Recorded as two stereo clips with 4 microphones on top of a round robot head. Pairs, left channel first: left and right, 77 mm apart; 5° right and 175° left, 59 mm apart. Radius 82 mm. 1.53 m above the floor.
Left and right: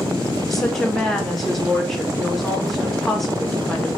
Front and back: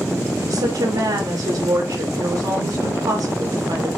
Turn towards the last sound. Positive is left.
turn(degrees=175)